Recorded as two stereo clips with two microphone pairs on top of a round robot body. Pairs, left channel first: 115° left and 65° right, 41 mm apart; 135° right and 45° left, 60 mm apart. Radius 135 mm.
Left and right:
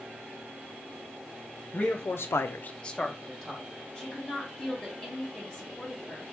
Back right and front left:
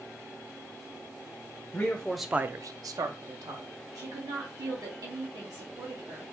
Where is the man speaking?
165° left, 1.0 m; by 3.7 s 25° left, 1.5 m.